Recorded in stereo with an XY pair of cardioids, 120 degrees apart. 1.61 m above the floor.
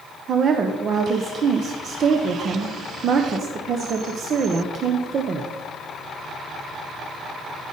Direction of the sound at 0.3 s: 45° right.